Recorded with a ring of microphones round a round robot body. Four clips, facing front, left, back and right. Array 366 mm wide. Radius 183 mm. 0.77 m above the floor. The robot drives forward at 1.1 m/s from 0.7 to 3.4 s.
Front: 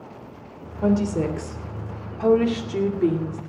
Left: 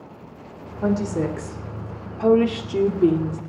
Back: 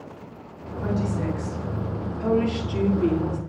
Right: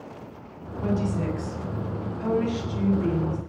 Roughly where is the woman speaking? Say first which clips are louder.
Left 4 dB, front 5 dB; ahead left.